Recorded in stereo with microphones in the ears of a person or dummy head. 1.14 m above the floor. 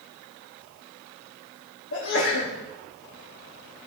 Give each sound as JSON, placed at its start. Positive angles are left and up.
{"t": 1.9, "sound": "a sneeze", "side_deg": 65, "distance_m": 2.5}